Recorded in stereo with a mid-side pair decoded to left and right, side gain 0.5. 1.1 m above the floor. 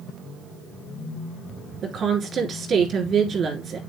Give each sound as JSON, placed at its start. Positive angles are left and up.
{"t": 1.8, "sound": "a woman speaking", "azimuth_deg": -45, "distance_m": 3.0}